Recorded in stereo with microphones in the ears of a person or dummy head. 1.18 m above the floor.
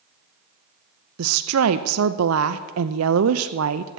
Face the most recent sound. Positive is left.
turn(degrees=-70)  # may be behind; listen again after turning